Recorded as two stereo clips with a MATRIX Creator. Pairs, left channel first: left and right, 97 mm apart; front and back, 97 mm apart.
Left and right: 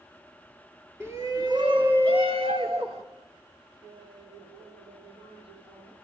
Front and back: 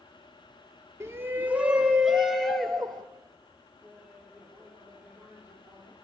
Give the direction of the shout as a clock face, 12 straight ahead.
5 o'clock.